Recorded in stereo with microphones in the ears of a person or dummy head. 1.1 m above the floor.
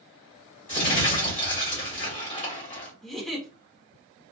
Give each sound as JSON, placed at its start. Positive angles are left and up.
{"t": 0.7, "sound": "crumpling", "side_deg": 35, "distance_m": 1.3}
{"t": 3.0, "sound": "a giggle", "side_deg": 5, "distance_m": 0.9}